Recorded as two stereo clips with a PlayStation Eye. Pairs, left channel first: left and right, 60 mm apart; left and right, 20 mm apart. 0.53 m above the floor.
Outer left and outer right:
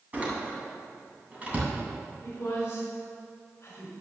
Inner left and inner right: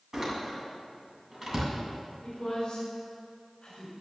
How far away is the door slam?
About 2.5 m.